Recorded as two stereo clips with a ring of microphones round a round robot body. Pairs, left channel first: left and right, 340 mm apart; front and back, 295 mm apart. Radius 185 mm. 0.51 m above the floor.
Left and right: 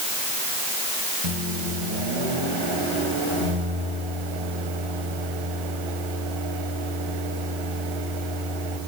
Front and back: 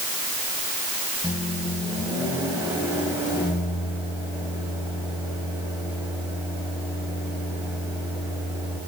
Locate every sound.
1.2 s a microwave: 100° right, 2.5 m